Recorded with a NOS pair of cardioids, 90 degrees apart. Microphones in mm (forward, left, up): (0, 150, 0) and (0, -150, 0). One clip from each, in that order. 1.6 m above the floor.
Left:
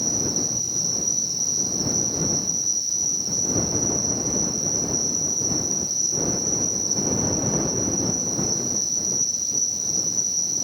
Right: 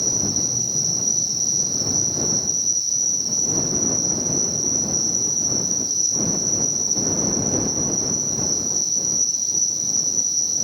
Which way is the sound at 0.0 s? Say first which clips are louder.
Right 2 dB; 15° right.